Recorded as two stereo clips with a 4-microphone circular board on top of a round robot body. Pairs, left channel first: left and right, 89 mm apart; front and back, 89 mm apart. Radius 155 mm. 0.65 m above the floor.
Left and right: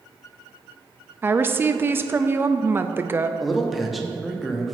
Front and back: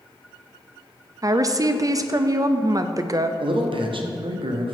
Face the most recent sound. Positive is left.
turn(degrees=180)